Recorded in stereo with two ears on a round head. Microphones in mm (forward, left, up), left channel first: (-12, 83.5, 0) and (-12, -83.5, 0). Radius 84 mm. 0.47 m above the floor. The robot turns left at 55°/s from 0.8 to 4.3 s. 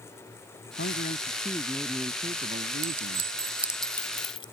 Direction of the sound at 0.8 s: 60° left.